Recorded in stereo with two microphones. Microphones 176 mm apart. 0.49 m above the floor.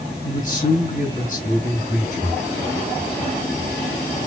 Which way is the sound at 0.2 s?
45° left (ahead or behind).